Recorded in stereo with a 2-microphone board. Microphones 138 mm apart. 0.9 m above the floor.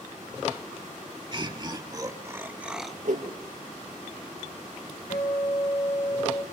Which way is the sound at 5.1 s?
80° left.